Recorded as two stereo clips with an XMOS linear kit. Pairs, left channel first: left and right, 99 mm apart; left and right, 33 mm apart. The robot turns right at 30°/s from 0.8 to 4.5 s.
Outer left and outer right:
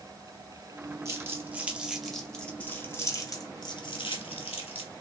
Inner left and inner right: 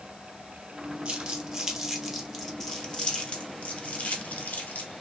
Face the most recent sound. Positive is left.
turn(degrees=75)  # may be behind; listen again after turning